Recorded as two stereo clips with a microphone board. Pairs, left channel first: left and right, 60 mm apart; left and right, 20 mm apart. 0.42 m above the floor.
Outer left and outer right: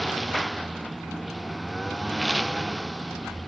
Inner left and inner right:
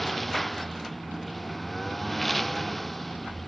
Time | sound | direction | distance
0.0 | a lawn mower | centre (ahead or behind) | ?